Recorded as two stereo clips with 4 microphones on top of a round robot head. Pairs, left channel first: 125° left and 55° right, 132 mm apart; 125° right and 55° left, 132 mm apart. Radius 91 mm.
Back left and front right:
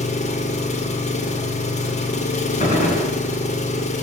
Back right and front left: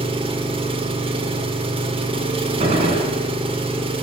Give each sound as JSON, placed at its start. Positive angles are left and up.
{"t": 0.0, "sound": "an engine running", "azimuth_deg": 100, "distance_m": 1.5}
{"t": 2.6, "sound": "a gunshot", "azimuth_deg": 95, "distance_m": 4.0}